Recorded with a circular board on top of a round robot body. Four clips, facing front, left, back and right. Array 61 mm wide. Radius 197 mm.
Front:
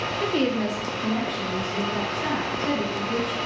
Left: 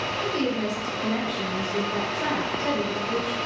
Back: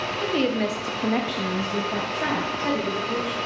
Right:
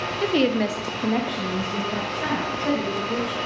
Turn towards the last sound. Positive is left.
turn(degrees=170)